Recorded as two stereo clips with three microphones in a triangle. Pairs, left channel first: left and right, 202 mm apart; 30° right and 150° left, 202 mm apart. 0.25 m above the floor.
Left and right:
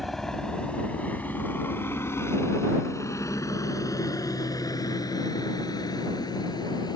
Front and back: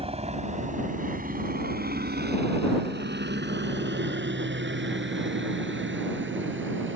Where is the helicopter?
Straight behind; by 7.0 s 160° left.